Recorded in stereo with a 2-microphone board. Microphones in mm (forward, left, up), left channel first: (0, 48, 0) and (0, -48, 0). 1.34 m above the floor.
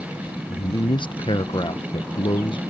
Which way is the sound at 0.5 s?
55° left (ahead or behind).